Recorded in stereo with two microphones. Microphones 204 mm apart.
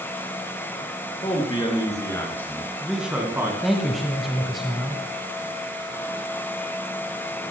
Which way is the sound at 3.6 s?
Centre (ahead or behind).